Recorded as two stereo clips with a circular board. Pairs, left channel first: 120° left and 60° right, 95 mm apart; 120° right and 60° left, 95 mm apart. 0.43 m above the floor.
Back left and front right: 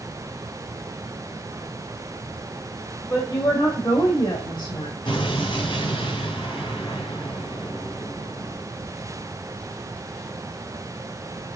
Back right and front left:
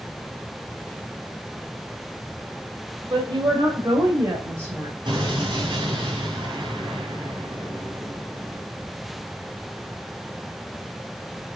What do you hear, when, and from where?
3.1 s a woman speaking: 70° left, 2.5 m; by 5.0 s 130° left, 2.5 m
5.0 s an explosion: 95° left, 3.5 m